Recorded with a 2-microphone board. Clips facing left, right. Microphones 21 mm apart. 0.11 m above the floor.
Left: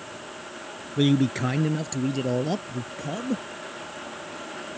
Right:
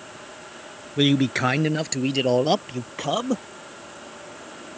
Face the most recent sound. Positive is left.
turn(degrees=-60)  # may be behind; listen again after turning